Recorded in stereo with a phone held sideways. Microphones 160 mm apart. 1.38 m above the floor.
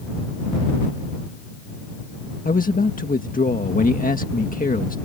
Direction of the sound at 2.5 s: 60° left (ahead or behind).